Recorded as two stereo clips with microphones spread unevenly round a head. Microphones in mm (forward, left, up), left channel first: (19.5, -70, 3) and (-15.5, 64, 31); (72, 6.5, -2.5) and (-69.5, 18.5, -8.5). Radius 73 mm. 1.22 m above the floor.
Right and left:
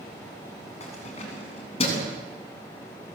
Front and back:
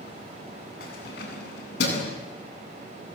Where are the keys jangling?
30° right, 8.5 m; by 2.1 s 25° right, 9 m.